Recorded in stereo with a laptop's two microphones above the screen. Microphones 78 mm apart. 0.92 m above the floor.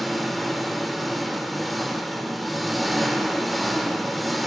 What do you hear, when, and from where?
0.0 s an engine running: centre (ahead or behind), 1.0 m